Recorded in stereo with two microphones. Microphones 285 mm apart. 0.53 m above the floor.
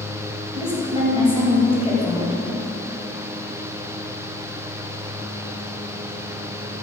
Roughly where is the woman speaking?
Centre.